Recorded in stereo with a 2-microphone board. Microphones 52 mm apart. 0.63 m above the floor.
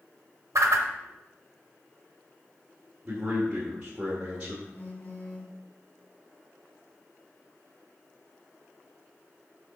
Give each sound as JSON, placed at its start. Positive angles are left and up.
{"t": 0.6, "sound": "a whoosh", "side_deg": -75, "distance_m": 0.8}
{"t": 3.0, "sound": "a man speaking", "side_deg": -20, "distance_m": 1.9}
{"t": 4.7, "sound": "a phone buzzing", "side_deg": 45, "distance_m": 1.5}